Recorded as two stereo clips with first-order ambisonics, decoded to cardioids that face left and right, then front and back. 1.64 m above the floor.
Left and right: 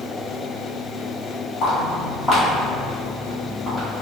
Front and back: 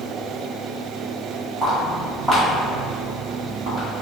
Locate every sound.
1.6 s footsteps: 110° left, 1.7 m; by 3.9 s 175° left, 2 m